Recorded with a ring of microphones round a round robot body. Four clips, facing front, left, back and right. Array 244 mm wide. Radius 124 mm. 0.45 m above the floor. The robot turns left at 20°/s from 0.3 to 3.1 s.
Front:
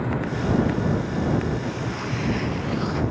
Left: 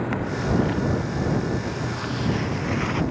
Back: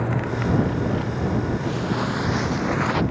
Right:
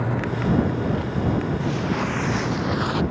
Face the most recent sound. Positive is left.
turn(degrees=-170)